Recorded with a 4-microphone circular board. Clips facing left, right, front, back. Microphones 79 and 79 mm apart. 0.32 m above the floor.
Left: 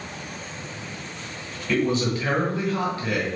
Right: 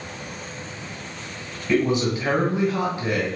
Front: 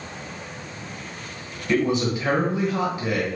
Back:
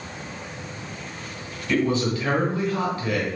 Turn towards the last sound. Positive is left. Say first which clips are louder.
# right 2 dB, front 1 dB
turn(degrees=-40)